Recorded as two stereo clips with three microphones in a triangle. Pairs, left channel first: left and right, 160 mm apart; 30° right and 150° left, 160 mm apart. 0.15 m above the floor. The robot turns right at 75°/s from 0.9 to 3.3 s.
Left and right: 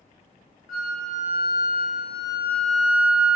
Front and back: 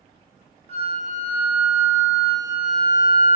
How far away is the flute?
About 0.6 m.